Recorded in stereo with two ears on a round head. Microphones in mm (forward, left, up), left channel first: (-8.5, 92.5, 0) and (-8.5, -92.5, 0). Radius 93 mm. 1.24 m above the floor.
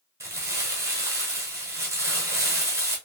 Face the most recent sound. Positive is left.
turn(degrees=-15)  # may be behind; listen again after turning